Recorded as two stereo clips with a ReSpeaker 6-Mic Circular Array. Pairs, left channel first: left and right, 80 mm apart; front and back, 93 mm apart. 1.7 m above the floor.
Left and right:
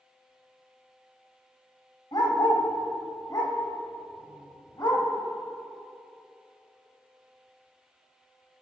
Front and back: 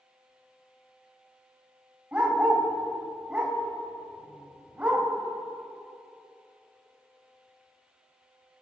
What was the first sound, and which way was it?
A dog barking, 105° left.